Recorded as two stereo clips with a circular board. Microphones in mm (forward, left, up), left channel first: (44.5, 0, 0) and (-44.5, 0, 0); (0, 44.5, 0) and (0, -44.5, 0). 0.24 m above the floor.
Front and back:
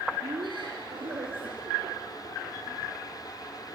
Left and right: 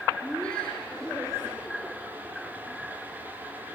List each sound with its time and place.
0.2 s laughter: 165° left, 3.5 m; by 2.9 s straight behind, 6.5 m